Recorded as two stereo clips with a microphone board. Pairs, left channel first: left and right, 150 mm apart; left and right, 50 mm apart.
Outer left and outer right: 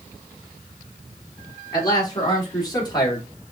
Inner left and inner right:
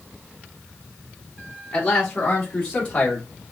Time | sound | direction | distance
1.7 | a man speaking | 30° left (ahead or behind) | 3.5 m